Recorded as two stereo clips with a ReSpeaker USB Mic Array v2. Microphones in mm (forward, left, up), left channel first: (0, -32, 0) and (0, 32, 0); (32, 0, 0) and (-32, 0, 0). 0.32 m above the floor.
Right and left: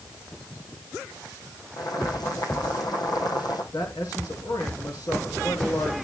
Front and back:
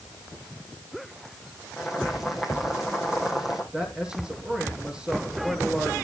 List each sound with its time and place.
1.8 s boiling: 95° right, 4 m
3.7 s a man speaking: 105° right, 6 m